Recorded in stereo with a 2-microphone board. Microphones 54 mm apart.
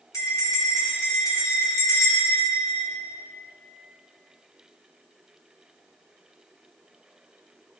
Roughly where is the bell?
Left.